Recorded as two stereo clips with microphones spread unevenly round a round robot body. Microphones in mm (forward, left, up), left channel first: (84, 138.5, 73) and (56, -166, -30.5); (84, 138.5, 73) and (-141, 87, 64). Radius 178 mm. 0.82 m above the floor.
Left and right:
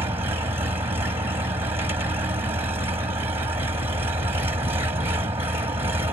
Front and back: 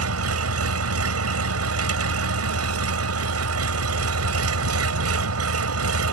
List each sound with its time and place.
0.0 s an engine running: straight behind